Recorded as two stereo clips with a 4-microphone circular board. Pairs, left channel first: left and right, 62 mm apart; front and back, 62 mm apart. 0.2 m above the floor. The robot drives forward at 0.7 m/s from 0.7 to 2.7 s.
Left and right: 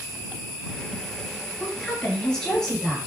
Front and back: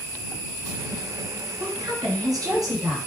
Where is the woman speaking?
165° left, 3 m.